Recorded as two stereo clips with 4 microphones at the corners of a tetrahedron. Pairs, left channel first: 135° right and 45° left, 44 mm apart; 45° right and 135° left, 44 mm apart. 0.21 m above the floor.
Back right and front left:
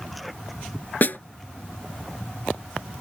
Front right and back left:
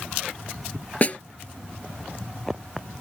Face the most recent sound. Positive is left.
turn(degrees=-95)